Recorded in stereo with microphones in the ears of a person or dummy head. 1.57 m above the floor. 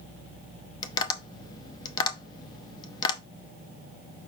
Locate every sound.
0.8 s tapping: 30° left (ahead or behind), 0.5 m